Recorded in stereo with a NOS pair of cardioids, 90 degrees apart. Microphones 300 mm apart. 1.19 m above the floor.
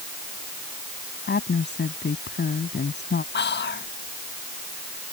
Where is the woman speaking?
35° left.